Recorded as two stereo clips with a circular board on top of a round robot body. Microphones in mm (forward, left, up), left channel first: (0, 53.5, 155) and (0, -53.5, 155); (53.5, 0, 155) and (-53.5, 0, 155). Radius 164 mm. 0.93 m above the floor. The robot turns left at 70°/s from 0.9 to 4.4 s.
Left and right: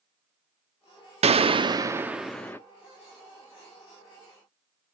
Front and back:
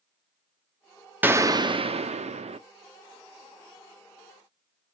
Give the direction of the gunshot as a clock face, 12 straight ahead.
4 o'clock.